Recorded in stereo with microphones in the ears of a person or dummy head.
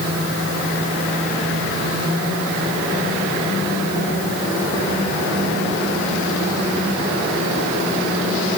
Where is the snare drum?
I don't hear a snare drum.